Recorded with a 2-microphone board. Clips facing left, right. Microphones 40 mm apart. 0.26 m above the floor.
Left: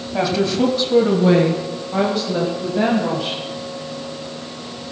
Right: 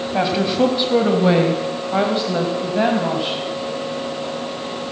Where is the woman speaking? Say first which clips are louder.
Even; 15° right (ahead or behind), 1.7 m; by 3.4 s 20° right (ahead or behind), 2 m.